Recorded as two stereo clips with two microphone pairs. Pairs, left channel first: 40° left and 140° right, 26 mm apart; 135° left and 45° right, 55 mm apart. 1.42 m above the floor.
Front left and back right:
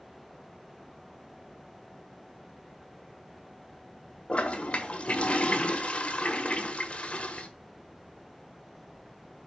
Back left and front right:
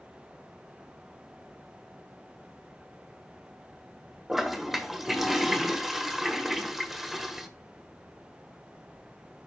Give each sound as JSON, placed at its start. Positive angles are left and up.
{"t": 4.3, "sound": "a toilet flushing", "azimuth_deg": 40, "distance_m": 1.5}